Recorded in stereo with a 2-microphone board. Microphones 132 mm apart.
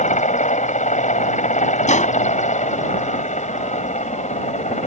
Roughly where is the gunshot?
Left.